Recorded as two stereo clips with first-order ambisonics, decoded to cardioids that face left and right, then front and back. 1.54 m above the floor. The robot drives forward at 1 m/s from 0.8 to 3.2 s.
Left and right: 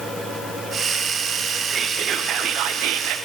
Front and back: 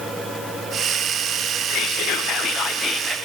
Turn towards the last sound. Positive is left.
turn(degrees=-110)